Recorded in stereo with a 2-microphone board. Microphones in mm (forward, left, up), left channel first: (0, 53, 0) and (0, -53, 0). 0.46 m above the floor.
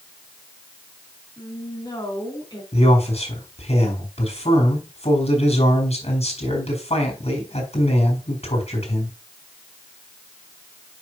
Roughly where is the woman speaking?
Left.